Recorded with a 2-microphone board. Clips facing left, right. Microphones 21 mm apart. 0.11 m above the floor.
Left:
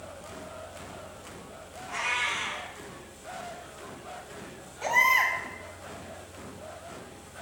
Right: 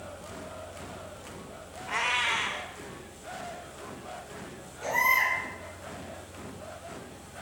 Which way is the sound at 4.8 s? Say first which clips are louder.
Left 2 dB; 45° left (ahead or behind).